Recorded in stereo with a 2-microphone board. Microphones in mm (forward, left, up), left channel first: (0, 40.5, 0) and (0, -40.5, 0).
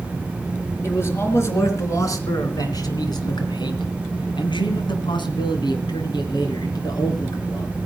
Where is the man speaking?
30° left (ahead or behind), 3.5 m; by 7.7 s 50° left (ahead or behind), 4 m.